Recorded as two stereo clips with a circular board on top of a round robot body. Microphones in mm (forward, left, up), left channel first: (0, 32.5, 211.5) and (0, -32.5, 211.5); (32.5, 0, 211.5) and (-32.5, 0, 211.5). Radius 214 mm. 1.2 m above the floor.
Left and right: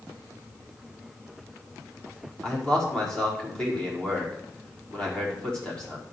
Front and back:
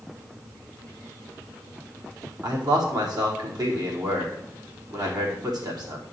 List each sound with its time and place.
2.4 s a man speaking: 165° left, 5 m